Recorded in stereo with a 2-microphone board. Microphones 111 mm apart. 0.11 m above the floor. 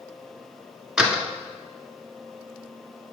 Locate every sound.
1.0 s a door slam: 5° right (ahead or behind), 1.2 m